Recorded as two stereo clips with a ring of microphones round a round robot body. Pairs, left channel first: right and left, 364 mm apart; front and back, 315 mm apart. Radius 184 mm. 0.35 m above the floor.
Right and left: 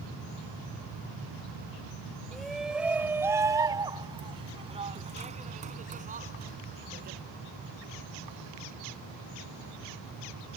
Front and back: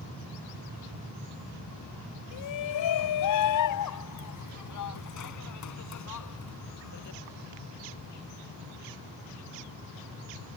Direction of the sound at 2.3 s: Straight ahead.